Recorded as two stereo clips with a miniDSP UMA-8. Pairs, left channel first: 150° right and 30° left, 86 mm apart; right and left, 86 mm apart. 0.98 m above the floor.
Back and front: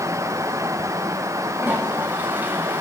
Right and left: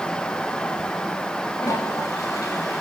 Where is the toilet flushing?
40° right, 7 m.